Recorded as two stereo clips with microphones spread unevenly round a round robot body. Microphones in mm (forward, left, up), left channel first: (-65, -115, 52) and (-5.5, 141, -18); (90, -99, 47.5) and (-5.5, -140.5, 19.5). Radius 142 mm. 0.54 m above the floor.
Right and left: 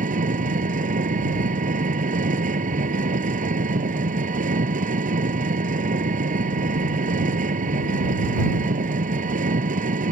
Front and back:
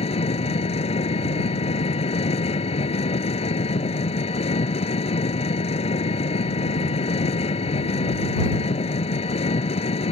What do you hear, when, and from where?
0.0 s an engine running: 10° left